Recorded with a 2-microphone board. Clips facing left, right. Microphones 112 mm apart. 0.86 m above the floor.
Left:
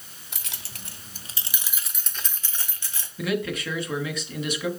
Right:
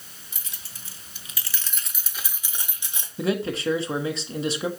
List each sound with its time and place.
0.3 s keys jangling: 80° left, 1.0 m; by 3.1 s 20° right (ahead or behind), 1.9 m
3.2 s a man speaking: 30° right (ahead or behind), 1.3 m